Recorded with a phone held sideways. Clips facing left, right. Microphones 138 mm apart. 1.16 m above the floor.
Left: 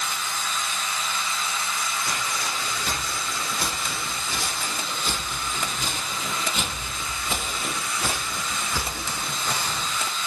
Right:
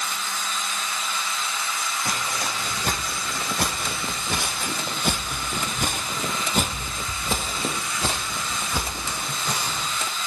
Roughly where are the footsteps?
Right.